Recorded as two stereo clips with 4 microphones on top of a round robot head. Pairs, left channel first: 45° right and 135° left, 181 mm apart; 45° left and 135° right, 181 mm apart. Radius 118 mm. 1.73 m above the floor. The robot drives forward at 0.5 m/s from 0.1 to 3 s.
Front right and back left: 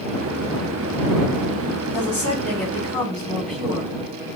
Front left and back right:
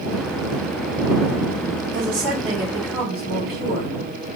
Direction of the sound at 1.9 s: 125° right.